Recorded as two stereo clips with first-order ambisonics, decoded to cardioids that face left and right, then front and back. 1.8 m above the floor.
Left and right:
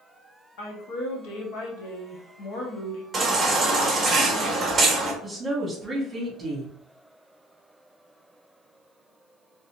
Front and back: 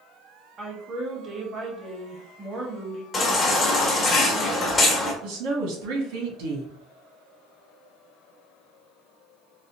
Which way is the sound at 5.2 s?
170° right.